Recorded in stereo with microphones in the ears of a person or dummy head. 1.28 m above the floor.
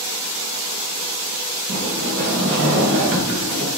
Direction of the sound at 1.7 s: 65° right (ahead or behind).